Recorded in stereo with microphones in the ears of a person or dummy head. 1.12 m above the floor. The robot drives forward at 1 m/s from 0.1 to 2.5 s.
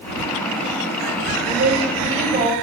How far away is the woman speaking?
About 4.5 m.